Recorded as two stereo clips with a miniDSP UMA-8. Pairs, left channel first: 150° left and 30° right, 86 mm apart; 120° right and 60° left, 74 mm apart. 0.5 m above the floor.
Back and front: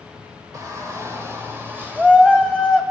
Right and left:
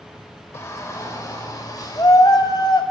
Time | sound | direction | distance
0.5 | a shout | 75° right | 2.5 m